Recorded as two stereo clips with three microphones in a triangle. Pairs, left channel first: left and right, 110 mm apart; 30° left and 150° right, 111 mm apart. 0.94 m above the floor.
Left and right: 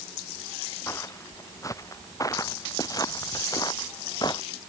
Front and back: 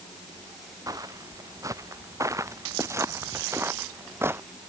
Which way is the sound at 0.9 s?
155° left.